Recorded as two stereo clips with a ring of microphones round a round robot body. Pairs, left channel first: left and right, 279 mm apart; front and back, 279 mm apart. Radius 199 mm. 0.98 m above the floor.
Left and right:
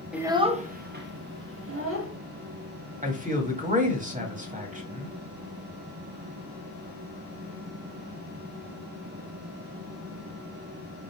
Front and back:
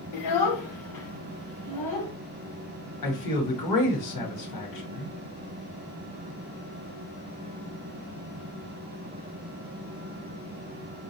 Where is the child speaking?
5° right, 0.7 m; by 2.1 s 50° right, 1.8 m.